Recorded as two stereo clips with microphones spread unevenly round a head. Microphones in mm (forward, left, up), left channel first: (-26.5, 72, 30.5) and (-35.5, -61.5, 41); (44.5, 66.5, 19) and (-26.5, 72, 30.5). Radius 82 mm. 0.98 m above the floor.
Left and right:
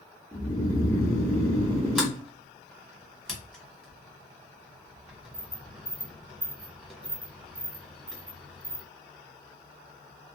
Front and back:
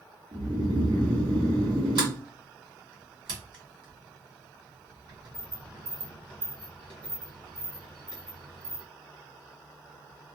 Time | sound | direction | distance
0.3 | snoring | 165° left | 1.1 m
1.9 | a sliding door | 175° left | 1.6 m